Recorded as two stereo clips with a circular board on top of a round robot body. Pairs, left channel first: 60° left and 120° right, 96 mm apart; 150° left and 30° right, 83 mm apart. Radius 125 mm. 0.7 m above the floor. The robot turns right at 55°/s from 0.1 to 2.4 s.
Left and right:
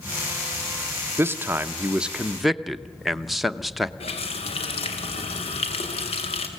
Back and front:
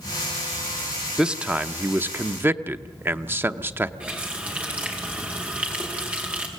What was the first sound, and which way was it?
A man speaking, 100° right.